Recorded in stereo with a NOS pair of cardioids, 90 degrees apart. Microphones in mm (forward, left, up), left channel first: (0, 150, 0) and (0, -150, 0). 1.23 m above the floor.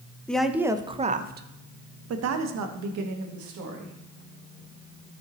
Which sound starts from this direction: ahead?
A woman speaking, at 0.3 s.